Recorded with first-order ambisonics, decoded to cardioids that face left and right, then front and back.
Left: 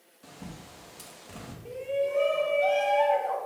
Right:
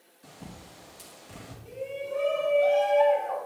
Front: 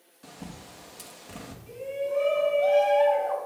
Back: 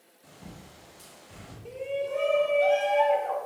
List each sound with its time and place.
0.2 s a bird: 10° left, 1.0 m
1.6 s a shout: 155° left, 3 m